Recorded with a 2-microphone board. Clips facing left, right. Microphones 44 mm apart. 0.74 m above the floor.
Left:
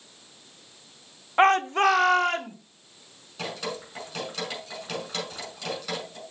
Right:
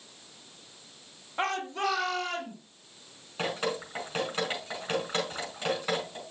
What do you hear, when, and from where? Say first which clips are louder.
1.4 s a shout: left 11 dB; 45° left (ahead or behind), 0.8 m; by 2.5 s 60° left (ahead or behind), 2 m
3.4 s dripping: right 2 dB; 30° right (ahead or behind), 5 m